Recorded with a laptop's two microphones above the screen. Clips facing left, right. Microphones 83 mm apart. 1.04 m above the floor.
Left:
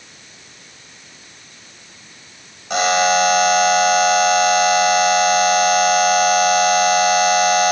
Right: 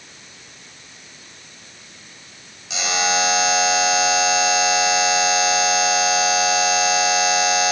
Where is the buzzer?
50° left (ahead or behind), 3.5 m.